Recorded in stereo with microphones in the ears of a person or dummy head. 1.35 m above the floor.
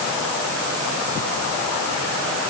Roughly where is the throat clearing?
I don't hear throat clearing.